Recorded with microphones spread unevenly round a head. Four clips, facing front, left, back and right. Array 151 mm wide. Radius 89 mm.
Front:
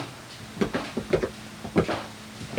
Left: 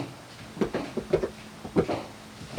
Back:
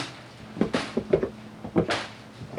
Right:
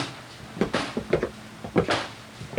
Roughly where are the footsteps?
Behind right.